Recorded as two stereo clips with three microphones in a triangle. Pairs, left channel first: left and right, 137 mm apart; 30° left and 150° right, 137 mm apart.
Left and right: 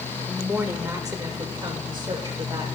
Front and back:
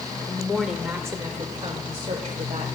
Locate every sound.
0.3 s a woman speaking: 15° right, 0.8 m; by 2.7 s 140° right, 1.5 m